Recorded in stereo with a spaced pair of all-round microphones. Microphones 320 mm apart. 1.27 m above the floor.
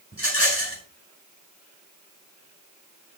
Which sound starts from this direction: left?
A rattle, at 0.1 s.